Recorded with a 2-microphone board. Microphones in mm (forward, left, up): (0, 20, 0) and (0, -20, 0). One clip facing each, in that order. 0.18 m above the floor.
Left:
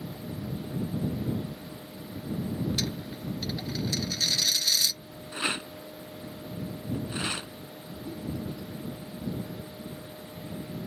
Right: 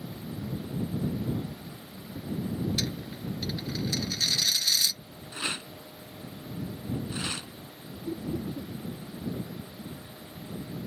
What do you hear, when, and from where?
2.8 s a dropped coin: 5° right (ahead or behind)
5.3 s a rattle: 20° left (ahead or behind)
8.1 s laughter: 45° right (ahead or behind)